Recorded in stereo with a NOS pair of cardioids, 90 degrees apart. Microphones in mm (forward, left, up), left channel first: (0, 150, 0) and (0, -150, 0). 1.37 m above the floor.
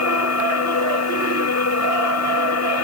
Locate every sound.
0.0 s a machine running: 55° left